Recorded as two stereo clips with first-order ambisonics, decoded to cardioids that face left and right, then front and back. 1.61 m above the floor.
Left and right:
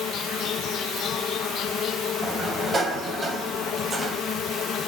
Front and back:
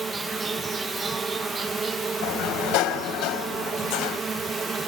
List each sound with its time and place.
0.0 s an insect: 120° left, 0.9 m
2.2 s a sliding door: 15° right, 3 m